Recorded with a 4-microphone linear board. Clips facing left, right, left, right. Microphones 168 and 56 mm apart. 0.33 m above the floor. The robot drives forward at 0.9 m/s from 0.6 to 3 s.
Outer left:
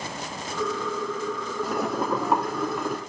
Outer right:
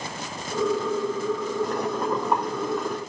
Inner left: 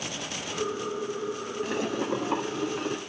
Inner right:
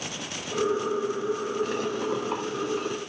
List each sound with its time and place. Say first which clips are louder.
1.6 s boiling: outer left 2 dB, inner right 1 dB; 5° left (ahead or behind), 1.7 m